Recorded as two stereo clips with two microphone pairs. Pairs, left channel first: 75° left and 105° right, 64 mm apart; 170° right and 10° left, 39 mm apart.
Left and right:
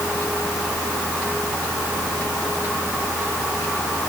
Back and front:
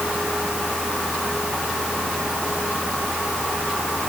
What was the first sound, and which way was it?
Only background noise.